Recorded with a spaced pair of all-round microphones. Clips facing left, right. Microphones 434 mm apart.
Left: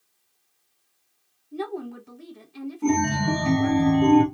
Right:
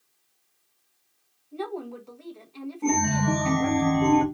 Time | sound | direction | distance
1.5 | a woman speaking | 30° left (ahead or behind) | 0.9 m
2.8 | a chime | 25° left (ahead or behind) | 1.1 m